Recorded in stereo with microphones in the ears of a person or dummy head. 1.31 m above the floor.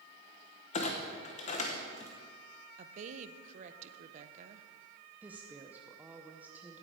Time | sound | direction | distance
0.7 | a clunk | 35° left (ahead or behind) | 1.0 m
2.8 | a woman speaking | 45° right (ahead or behind) | 0.7 m
5.2 | a woman speaking | 10° right (ahead or behind) | 0.7 m